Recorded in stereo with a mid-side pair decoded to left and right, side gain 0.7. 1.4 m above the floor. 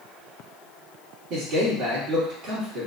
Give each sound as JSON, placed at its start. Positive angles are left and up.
{"t": 1.3, "sound": "a man speaking", "azimuth_deg": -55, "distance_m": 2.5}